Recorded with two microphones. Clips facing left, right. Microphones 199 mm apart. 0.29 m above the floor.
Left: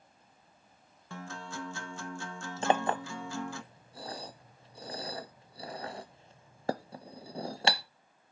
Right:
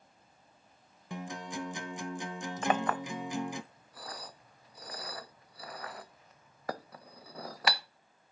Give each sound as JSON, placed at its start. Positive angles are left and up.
{"t": 1.1, "sound": "a guitar", "side_deg": -15, "distance_m": 0.5}
{"t": 2.6, "sound": "a clink", "side_deg": 30, "distance_m": 0.5}